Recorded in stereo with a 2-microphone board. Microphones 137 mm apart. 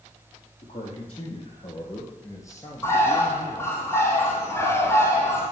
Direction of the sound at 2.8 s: 20° left (ahead or behind).